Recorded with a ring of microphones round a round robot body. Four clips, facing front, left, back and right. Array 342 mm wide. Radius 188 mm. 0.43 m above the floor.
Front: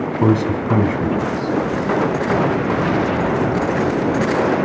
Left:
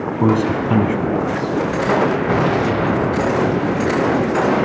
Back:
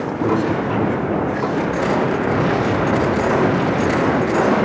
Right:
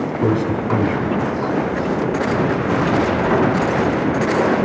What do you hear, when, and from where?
0.2 s a man speaking: 35° left, 5 m